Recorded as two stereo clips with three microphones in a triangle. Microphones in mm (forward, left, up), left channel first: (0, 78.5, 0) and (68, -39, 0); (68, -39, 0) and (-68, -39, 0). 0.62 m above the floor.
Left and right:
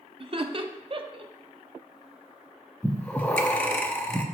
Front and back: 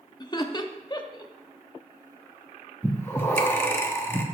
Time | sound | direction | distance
0.2 | laughter | 40° right | 0.7 m
2.8 | breathing | 55° left | 0.7 m